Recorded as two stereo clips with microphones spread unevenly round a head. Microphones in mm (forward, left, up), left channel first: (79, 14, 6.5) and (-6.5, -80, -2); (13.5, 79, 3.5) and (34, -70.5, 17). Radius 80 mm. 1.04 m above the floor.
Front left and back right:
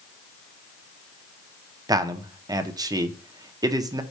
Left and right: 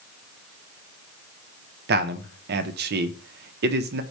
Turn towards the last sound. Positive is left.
turn(degrees=-75)